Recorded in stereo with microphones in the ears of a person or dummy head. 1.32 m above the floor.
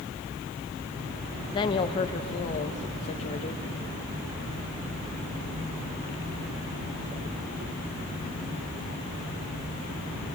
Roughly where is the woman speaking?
Left.